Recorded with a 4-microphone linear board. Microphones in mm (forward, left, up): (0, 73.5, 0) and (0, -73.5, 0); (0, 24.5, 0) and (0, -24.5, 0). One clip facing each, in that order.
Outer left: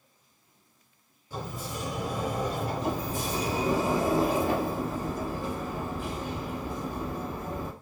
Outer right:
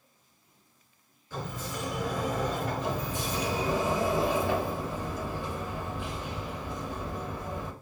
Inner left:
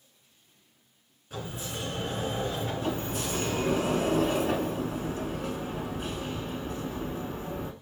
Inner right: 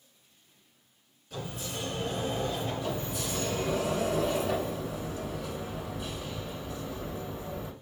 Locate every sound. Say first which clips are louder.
1.3 s a sliding door: even, inner left 1 dB; 30° left (ahead or behind), 2 m
2.8 s a sliding door: outer left 2 dB, inner left 2 dB; 45° left (ahead or behind), 0.7 m